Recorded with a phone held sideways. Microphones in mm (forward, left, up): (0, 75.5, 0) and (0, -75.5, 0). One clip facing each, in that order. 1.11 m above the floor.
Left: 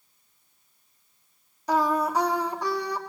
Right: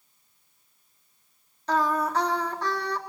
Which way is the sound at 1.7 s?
10° left (ahead or behind).